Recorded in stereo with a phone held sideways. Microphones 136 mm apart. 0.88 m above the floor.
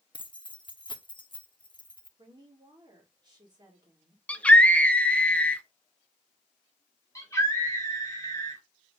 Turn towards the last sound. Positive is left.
turn(degrees=20)  # may be behind; listen again after turning